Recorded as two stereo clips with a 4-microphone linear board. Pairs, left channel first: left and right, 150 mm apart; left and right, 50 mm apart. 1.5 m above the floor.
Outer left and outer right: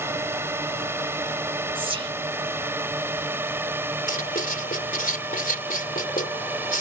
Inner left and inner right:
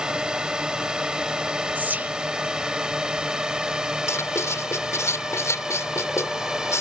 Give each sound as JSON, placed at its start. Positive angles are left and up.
{"t": 0.0, "sound": "a drone", "side_deg": -15}
{"t": 1.8, "sound": "whispering", "side_deg": -40}
{"t": 4.1, "sound": "writing", "side_deg": 85}